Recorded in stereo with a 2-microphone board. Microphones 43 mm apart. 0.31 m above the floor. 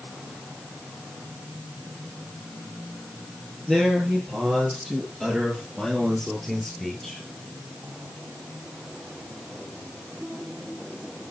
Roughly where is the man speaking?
Centre.